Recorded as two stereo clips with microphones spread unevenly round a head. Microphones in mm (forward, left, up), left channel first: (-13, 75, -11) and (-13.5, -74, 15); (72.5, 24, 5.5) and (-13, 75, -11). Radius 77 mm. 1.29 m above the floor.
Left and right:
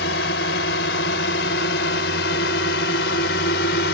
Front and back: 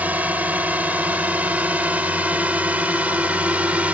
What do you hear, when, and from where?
0.0 s a drone: 75° left